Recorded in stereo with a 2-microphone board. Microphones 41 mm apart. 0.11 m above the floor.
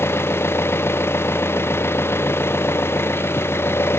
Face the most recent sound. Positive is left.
turn(degrees=75)  # may be behind; listen again after turning